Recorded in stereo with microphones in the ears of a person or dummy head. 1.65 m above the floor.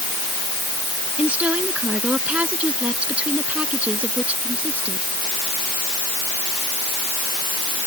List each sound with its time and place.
1.2 s a woman speaking: 5° right (ahead or behind)